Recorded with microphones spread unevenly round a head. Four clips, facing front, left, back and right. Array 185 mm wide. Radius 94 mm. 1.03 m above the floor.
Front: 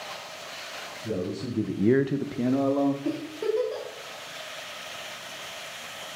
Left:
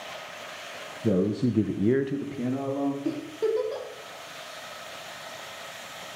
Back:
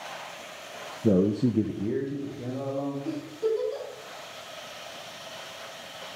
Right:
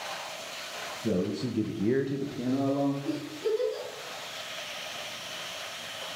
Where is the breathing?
No breathing in this recording.